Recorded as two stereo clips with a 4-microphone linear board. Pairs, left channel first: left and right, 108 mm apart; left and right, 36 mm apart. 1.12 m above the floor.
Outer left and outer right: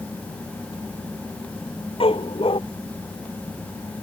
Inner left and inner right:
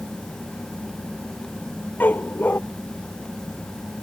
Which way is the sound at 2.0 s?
55° left (ahead or behind).